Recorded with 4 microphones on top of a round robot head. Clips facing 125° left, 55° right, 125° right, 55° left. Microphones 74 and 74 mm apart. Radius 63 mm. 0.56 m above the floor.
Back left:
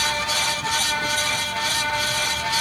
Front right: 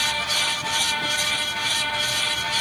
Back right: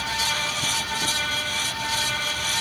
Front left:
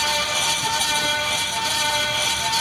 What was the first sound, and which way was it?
Only background noise.